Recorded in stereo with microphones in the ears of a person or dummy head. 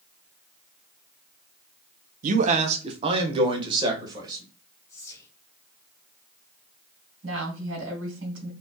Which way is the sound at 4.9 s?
15° left (ahead or behind).